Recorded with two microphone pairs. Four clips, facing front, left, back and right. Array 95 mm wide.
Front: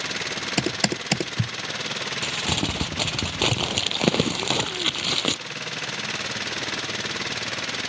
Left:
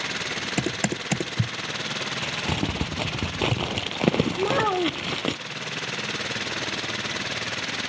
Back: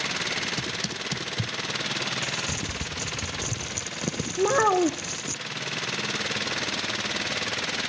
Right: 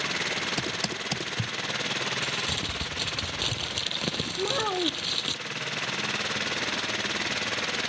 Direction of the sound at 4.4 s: 155° left.